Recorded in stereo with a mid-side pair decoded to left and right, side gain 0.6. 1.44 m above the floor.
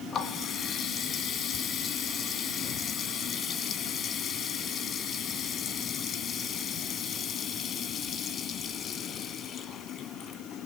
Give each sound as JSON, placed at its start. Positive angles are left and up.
{"t": 0.1, "sound": "a running tap", "azimuth_deg": 45, "distance_m": 1.8}